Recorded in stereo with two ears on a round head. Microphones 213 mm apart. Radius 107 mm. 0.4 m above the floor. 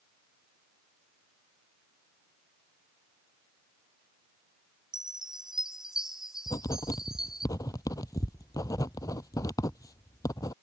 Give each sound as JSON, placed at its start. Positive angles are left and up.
{"t": 4.9, "sound": "a chime", "side_deg": 0}
{"t": 6.5, "sound": "writing", "side_deg": 15}